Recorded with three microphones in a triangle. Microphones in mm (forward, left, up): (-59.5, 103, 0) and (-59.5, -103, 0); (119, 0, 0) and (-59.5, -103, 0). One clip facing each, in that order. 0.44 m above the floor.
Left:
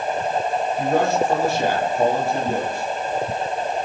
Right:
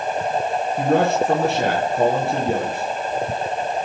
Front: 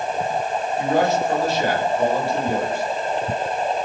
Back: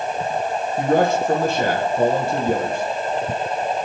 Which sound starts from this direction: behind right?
A man speaking, at 0.8 s.